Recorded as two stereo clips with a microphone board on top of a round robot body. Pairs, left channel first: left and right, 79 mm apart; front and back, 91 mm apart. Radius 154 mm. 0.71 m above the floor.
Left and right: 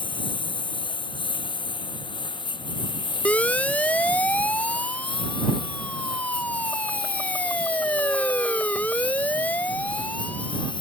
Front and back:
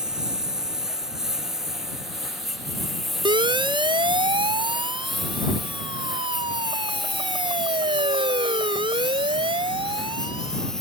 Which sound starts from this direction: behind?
A siren, at 3.2 s.